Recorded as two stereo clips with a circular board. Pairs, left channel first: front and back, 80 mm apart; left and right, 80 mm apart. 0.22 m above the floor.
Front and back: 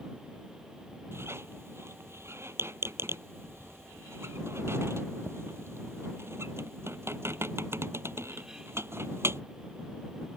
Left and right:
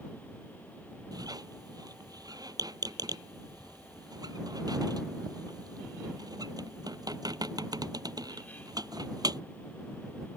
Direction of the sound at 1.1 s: 125° right.